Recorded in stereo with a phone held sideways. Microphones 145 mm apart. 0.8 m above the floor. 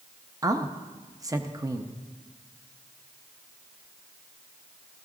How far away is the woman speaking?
About 0.6 m.